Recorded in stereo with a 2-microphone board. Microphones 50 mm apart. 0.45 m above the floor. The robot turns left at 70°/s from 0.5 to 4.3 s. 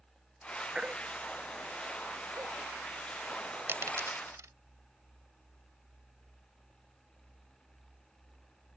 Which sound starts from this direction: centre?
A baby crying, at 0.8 s.